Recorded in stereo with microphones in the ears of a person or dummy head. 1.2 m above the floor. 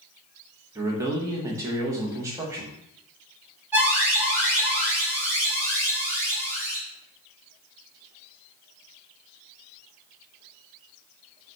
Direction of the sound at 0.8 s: 20° right (ahead or behind).